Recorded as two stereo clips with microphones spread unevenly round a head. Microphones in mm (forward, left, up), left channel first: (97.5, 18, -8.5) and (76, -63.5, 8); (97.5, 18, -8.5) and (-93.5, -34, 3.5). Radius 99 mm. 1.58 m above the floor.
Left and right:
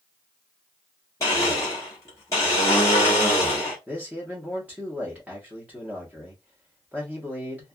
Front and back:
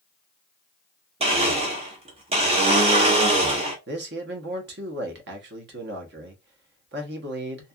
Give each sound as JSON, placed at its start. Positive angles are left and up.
{"t": 1.2, "sound": "a blender", "azimuth_deg": 145, "distance_m": 0.9}
{"t": 3.9, "sound": "a man speaking", "azimuth_deg": -175, "distance_m": 0.9}